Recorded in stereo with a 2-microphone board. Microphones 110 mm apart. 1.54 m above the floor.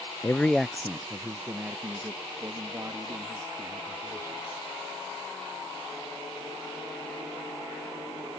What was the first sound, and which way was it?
A man speaking, 25° left (ahead or behind).